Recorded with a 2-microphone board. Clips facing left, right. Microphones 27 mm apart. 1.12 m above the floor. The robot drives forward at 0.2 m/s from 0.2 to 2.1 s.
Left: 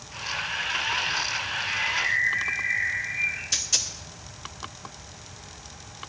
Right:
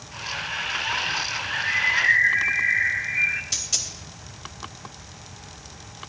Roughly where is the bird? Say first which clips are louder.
Right 4 dB; right.